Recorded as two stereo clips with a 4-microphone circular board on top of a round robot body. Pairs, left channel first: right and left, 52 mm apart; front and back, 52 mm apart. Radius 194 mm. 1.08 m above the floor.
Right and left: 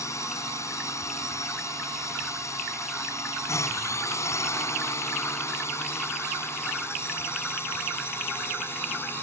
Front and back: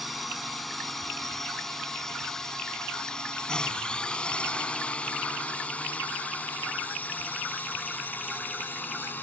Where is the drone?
95° right; by 9.2 s 50° right.